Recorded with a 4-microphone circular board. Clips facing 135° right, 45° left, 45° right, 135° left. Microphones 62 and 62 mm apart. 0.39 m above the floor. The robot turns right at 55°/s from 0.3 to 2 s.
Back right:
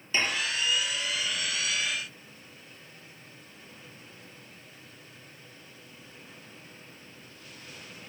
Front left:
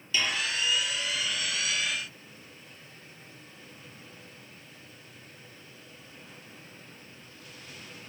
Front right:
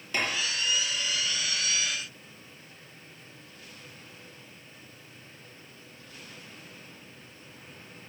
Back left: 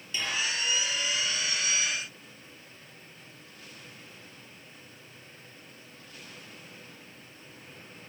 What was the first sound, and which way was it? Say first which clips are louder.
Dishes clattering: back right 1 dB, front right 2 dB; 75° right.